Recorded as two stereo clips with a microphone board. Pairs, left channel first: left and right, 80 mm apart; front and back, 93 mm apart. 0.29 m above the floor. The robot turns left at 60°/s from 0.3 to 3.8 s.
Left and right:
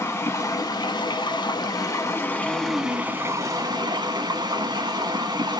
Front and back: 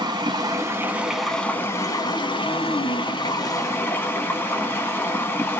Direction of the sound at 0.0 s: 145° left.